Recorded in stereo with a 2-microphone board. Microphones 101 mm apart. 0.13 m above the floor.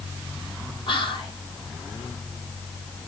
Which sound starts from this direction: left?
Whispering, at 0.9 s.